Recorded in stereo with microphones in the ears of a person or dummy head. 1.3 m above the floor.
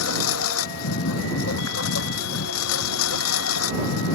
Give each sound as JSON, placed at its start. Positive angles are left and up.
{"t": 0.0, "sound": "a lawn mower", "side_deg": 85}